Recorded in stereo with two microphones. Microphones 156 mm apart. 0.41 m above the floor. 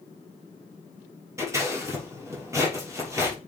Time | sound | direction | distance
1.4 | scissors | 20° right (ahead or behind) | 6 m